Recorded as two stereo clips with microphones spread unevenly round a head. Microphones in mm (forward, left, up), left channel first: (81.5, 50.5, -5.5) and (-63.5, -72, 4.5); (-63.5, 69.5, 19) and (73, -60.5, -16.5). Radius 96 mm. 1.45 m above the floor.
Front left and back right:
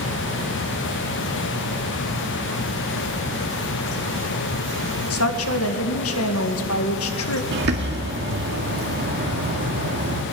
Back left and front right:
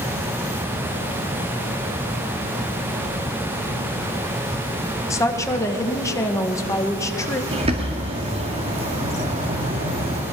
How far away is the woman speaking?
About 1.8 m.